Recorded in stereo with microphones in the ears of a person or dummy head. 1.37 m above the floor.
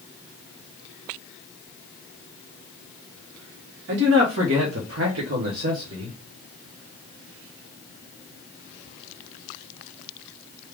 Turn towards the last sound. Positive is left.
turn(degrees=-40)  # may be behind; listen again after turning